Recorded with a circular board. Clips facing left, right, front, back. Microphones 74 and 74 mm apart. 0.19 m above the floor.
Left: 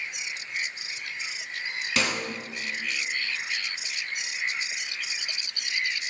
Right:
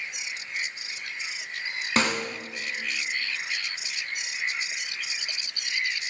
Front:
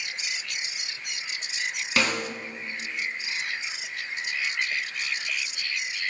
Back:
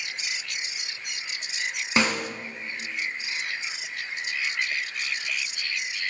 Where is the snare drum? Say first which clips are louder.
Right 3 dB, back 2 dB; 120° right, 1.7 m.